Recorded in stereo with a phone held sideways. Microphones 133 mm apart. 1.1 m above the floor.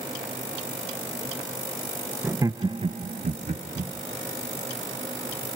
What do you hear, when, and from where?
2.2 s laughter: 15° right (ahead or behind), 0.7 m; by 3.9 s 85° right, 1.0 m